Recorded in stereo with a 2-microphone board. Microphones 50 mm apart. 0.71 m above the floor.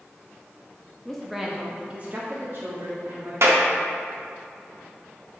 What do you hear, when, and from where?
1.1 s a woman speaking: 10° left (ahead or behind), 0.6 m; by 3.3 s 60° right (ahead or behind), 1.3 m
3.4 s a clap: 70° right (ahead or behind), 0.9 m